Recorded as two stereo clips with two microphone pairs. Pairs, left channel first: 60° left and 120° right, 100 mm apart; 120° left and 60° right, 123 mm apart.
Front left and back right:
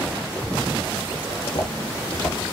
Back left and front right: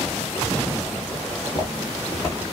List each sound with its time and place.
1.3 s footsteps: 65° left, 2 m; by 2.4 s 55° left, 3 m